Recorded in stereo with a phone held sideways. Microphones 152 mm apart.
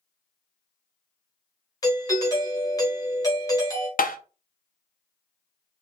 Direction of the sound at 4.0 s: 65° left (ahead or behind).